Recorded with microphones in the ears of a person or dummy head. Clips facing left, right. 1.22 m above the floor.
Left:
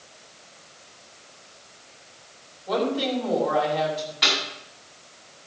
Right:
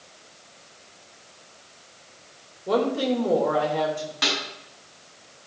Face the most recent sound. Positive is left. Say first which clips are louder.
# right 1 dB
turn(degrees=-65)  # may be behind; listen again after turning